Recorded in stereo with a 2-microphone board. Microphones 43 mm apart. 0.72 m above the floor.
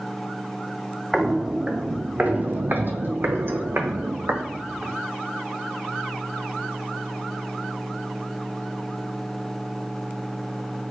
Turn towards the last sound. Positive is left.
turn(degrees=-65)  # may be behind; listen again after turning